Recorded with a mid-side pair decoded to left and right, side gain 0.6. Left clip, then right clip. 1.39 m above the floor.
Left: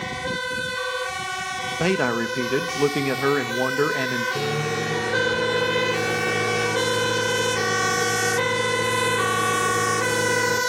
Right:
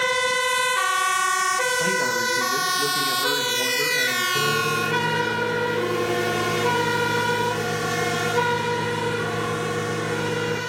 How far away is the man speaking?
About 1.9 m.